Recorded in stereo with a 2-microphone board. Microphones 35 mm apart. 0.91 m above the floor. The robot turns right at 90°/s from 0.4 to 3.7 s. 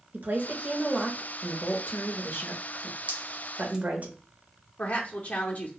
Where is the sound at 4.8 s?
50° left (ahead or behind), 0.5 m.